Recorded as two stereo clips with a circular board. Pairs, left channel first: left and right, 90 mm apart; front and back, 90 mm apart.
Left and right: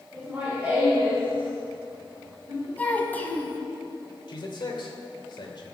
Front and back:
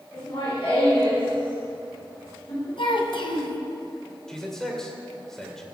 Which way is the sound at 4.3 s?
85° left.